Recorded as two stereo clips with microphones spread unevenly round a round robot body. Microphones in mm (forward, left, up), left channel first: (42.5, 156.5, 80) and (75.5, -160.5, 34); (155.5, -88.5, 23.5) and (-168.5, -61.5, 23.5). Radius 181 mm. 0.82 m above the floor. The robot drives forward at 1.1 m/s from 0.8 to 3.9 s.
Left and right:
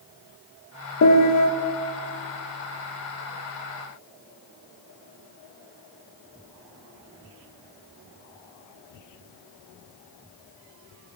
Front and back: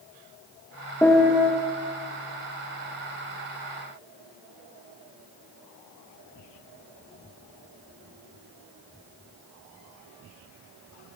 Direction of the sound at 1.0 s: 75° left.